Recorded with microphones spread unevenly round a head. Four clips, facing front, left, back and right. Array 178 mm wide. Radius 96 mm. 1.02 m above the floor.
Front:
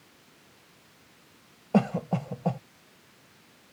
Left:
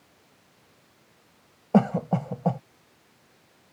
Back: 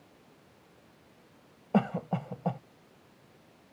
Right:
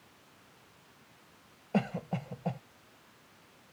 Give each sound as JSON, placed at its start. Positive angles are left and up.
{"t": 1.7, "sound": "a cough", "azimuth_deg": 95}